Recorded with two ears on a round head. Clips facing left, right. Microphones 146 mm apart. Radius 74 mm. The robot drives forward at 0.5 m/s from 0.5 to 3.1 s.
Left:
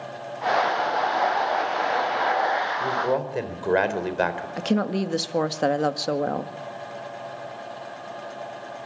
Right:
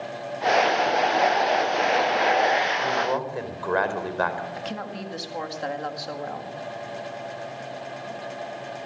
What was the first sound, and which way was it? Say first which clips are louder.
A man speaking: left 1 dB; 25° left (ahead or behind).